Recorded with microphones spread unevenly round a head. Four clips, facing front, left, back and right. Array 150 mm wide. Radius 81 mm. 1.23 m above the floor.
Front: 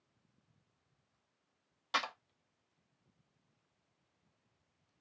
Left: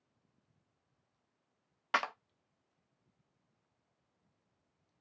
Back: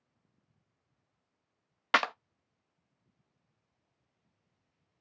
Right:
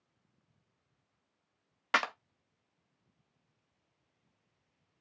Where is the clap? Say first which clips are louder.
Right 2 dB, back 9 dB; 155° right, 0.5 m.